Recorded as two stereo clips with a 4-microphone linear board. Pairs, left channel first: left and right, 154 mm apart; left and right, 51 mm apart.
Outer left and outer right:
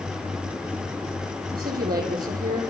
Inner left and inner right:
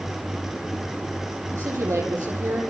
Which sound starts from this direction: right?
A woman speaking, at 1.5 s.